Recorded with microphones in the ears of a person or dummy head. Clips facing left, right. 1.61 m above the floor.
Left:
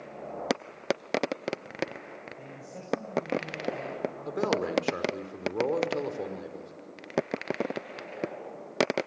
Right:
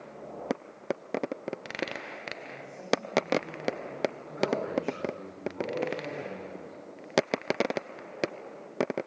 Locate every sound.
2.4 s a man speaking: 85° left, 7.5 m
4.2 s a man speaking: 85° left, 5.5 m